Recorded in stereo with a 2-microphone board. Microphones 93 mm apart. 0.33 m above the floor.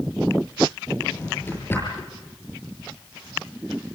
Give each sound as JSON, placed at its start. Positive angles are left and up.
{"t": 1.0, "sound": "a drawer", "side_deg": 25, "distance_m": 6.5}